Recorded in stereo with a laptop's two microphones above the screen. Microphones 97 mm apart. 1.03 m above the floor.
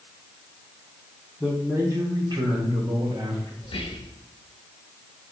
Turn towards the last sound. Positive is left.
turn(degrees=60)  # may be behind; listen again after turning